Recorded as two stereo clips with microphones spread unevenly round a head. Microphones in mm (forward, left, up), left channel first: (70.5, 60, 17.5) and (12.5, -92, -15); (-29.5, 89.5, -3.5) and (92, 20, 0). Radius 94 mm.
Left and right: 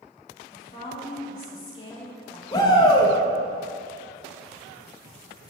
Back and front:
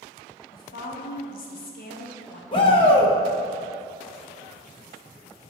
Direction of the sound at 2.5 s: 145° left.